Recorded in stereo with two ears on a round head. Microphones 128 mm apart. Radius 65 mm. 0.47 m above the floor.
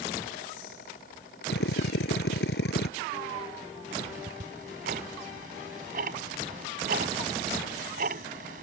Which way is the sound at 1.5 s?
85° left.